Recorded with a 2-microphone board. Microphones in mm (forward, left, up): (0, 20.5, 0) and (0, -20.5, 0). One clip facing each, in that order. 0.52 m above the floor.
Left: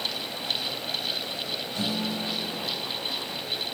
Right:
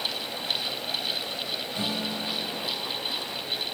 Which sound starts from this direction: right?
A guitar, at 1.8 s.